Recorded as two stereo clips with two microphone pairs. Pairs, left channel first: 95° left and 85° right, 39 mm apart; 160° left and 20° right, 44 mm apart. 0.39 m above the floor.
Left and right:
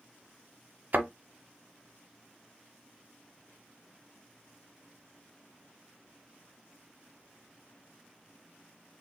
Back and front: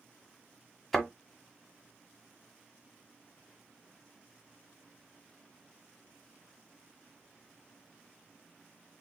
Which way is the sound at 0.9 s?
115° right.